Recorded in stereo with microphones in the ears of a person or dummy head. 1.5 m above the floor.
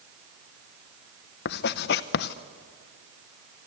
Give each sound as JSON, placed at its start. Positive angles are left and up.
{"t": 1.4, "sound": "writing", "side_deg": 45, "distance_m": 0.7}